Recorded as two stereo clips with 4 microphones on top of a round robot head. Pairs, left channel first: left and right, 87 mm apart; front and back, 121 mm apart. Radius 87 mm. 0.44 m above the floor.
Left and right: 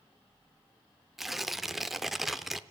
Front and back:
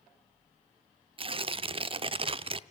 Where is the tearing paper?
Straight behind, 0.7 m.